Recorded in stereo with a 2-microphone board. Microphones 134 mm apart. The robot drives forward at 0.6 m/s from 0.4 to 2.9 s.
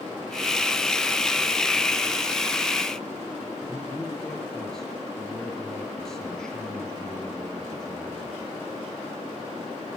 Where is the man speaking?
5° left (ahead or behind), 3 m.